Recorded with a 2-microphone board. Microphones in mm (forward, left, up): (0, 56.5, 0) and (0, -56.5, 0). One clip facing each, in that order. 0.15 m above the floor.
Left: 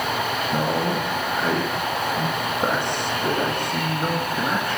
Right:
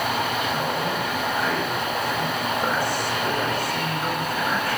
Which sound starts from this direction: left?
A man speaking, at 0.5 s.